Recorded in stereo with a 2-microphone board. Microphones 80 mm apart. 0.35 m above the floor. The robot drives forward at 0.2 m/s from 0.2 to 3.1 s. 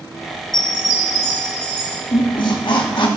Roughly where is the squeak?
Left.